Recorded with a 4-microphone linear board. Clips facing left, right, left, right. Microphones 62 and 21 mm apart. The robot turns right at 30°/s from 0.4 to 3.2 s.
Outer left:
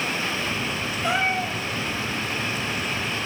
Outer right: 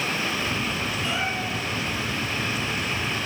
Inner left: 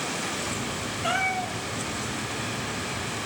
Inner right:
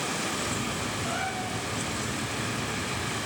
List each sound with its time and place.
1.0 s a cat meowing: 70° left (ahead or behind), 2.5 m; by 1.6 s 80° left, 2.5 m